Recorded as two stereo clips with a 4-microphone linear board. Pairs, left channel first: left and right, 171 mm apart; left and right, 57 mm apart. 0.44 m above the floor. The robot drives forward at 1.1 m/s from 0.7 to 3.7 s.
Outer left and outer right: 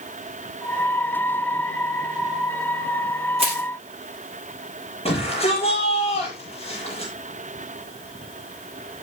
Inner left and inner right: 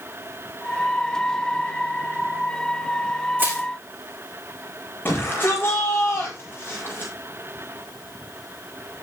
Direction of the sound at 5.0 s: 35° left (ahead or behind).